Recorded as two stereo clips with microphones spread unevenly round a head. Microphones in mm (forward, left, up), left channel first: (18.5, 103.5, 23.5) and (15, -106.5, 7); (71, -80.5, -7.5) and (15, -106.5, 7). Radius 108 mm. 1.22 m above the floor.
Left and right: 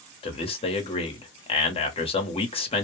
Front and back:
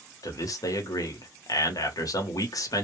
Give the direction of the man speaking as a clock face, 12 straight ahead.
11 o'clock.